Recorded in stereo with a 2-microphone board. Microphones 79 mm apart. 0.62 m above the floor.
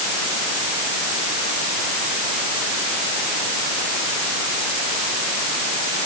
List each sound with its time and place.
Only background noise.